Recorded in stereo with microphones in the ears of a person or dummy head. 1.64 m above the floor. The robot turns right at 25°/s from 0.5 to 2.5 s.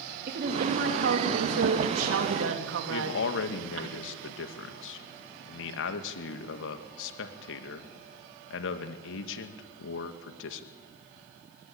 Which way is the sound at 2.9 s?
80° left.